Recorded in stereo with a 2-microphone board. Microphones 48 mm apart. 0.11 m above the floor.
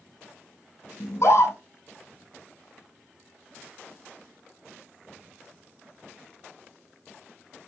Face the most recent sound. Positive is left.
turn(degrees=60)  # may be behind; listen again after turning